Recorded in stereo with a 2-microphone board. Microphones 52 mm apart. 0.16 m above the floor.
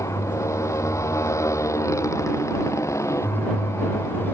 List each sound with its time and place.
0.0 s a motorcycle: 70° left (ahead or behind)